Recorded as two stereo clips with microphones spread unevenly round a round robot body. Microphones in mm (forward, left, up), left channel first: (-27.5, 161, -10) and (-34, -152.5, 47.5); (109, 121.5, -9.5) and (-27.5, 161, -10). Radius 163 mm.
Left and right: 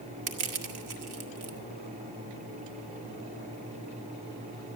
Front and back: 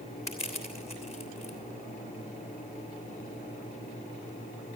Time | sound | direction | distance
0.3 | crushing | 90° right | 1.8 m